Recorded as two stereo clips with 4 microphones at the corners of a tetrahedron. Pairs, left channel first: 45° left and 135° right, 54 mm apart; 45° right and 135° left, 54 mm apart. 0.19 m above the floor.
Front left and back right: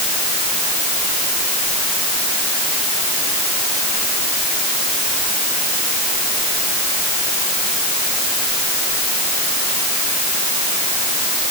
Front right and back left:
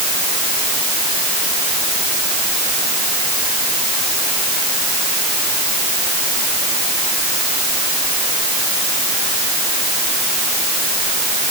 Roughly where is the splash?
I don't hear a splash.